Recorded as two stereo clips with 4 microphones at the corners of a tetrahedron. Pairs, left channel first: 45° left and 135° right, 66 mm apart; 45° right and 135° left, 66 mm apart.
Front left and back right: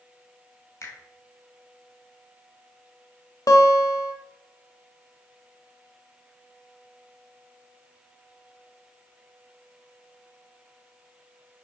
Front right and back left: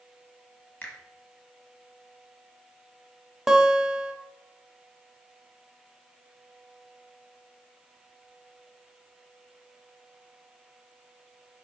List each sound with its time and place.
0.8 s a finger snap: 15° left, 1.8 m
3.5 s a guitar: 50° left, 0.8 m